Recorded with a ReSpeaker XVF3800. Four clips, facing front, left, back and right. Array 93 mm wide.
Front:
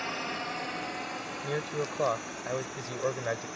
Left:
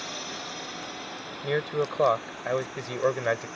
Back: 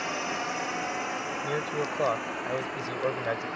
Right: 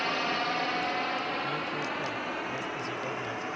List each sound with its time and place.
0.0 s a drone: 105° right; by 3.6 s 130° right
1.4 s a man speaking: 95° left